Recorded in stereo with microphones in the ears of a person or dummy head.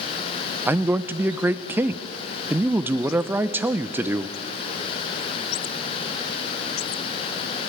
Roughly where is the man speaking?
Centre.